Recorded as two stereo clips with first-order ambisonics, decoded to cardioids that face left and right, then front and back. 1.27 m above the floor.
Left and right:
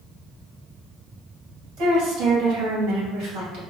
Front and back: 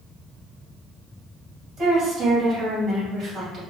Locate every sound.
1.8 s a woman speaking: 115° right, 1.8 m